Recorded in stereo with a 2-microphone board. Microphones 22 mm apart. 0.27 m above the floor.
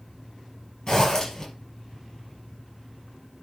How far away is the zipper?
About 5 m.